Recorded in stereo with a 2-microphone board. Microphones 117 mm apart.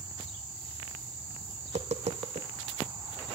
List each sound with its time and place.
1.6 s tapping: 75° right (ahead or behind), 1.1 m